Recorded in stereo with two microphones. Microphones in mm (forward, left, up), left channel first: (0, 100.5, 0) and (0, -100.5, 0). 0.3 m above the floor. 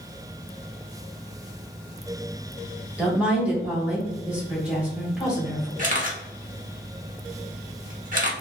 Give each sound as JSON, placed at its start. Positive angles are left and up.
{"t": 3.0, "sound": "a woman speaking", "side_deg": -5, "distance_m": 1.2}
{"t": 5.8, "sound": "a camera shutter", "side_deg": -45, "distance_m": 0.9}